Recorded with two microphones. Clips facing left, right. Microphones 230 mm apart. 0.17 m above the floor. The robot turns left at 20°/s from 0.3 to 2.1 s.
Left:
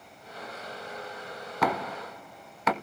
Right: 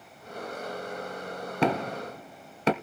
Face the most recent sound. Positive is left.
turn(degrees=-30)  # may be behind; listen again after turning